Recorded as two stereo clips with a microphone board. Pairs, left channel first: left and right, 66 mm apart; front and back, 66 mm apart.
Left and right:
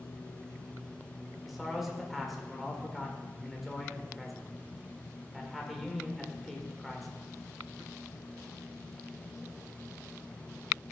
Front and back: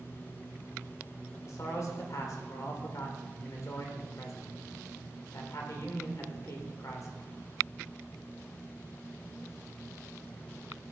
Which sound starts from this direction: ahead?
A man speaking, at 1.4 s.